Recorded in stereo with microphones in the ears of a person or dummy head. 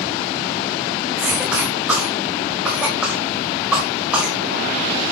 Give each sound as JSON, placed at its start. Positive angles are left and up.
{"t": 1.2, "sound": "a cough", "side_deg": -5, "distance_m": 1.7}